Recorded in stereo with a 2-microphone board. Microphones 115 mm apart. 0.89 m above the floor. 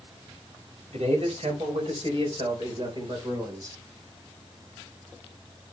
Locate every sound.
0.9 s a man speaking: 70° right (ahead or behind), 5 m; by 3.8 s 30° right (ahead or behind), 3.5 m